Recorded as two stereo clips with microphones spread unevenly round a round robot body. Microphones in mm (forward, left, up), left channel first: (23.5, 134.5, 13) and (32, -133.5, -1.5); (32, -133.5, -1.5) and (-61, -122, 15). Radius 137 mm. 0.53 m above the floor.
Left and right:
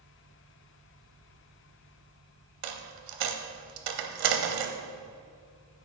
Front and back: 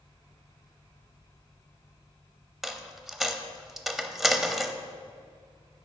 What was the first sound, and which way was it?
A dropped coin, 100° right.